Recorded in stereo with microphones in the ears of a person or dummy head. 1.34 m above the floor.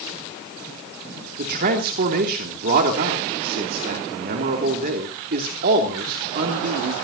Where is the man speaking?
55° right (ahead or behind), 2.5 m.